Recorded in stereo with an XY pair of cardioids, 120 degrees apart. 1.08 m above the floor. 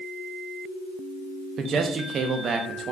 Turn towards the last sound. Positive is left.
turn(degrees=-45)